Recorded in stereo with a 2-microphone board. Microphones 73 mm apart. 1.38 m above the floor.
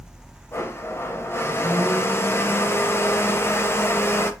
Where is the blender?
35° left (ahead or behind), 0.5 m.